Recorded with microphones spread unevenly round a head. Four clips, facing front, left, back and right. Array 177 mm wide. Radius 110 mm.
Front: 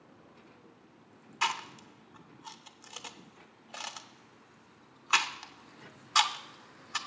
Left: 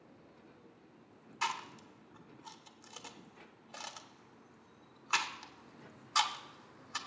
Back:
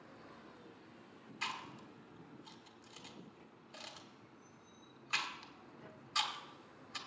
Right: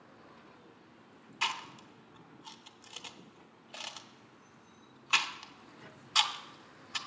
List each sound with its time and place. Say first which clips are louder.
1.4 s chewing: even, front 11 dB; 5° right, 0.9 m